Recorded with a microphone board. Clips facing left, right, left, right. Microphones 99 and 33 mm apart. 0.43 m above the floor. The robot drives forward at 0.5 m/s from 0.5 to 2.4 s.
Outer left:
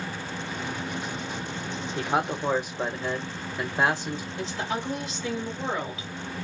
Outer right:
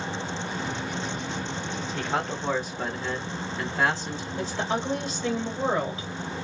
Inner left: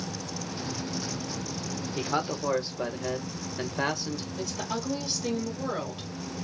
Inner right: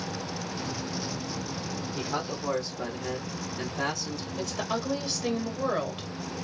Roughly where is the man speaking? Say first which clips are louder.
Outer left 3 dB, inner left 4 dB; centre.